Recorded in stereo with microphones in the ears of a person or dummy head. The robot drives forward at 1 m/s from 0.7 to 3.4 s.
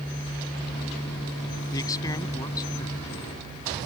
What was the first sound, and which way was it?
A man speaking, 20° left (ahead or behind).